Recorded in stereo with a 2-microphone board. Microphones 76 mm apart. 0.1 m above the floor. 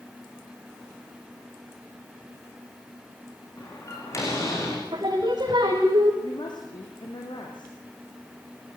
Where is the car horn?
I don't hear a car horn.